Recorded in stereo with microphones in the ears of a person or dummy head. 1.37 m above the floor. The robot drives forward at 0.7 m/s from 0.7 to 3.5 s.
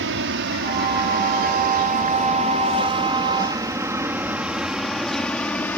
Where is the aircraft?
60° right (ahead or behind); by 5.8 s 10° left (ahead or behind).